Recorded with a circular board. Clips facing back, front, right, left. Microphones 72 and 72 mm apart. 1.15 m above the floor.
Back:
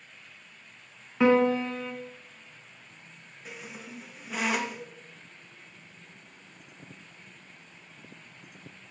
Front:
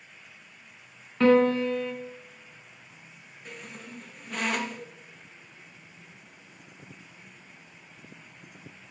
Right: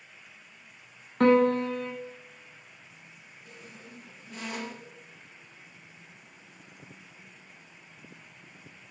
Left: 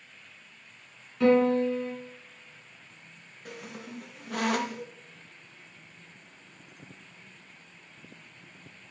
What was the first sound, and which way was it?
A piano, 105° right.